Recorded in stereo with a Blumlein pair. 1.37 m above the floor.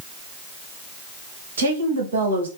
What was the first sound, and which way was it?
A woman speaking, 65° right.